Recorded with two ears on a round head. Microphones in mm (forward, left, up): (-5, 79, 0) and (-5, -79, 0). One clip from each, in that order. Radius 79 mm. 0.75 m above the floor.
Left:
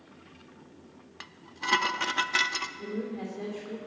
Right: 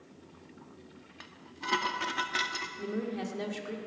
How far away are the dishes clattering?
About 0.6 m.